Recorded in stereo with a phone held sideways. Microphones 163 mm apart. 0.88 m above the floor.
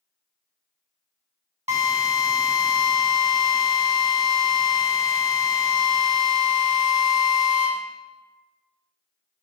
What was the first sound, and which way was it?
A drill, 45° right (ahead or behind).